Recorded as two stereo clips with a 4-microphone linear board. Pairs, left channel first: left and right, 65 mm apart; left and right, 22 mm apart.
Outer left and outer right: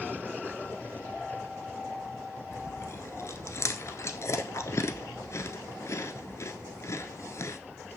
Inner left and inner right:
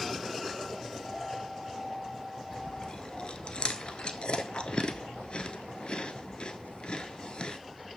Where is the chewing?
45° left (ahead or behind), 0.7 m.